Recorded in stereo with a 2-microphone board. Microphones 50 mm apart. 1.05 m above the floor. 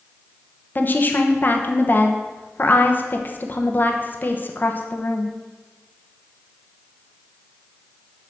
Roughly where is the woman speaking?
Left.